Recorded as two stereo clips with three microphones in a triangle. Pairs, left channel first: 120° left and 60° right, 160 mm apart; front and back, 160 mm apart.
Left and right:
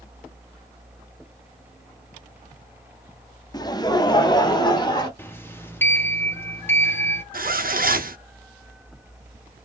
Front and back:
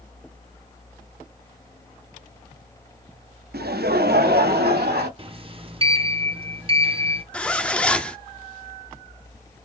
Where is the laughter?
175° right, 0.6 m; by 5.1 s straight behind, 1.4 m.